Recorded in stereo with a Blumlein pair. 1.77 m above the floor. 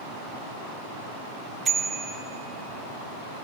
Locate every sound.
1.6 s a bicycle bell: 20° right, 2.5 m